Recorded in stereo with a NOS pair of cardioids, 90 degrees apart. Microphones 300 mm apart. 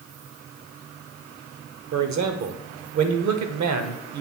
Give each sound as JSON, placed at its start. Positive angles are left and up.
{"t": 1.9, "sound": "a man speaking", "azimuth_deg": -65, "distance_m": 1.1}